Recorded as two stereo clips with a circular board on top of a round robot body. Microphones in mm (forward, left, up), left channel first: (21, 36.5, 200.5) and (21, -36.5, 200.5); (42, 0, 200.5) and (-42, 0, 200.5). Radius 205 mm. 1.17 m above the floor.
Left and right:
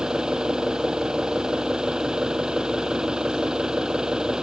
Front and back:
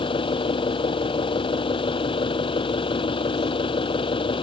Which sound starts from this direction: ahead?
An engine running, at 0.0 s.